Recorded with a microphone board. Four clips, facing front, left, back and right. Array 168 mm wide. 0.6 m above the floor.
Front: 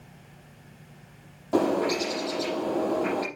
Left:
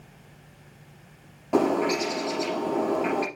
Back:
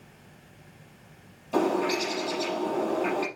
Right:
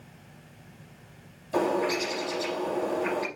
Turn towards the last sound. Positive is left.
turn(degrees=60)